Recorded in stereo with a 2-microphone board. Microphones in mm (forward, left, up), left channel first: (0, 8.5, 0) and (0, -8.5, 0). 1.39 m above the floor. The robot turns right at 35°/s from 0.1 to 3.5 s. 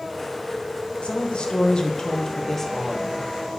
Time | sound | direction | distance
1.0 | a woman speaking | 110° left | 1.3 m